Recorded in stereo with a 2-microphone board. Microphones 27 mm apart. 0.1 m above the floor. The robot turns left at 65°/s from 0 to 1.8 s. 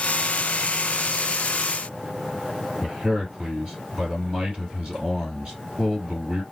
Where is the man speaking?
45° right (ahead or behind), 2.5 m.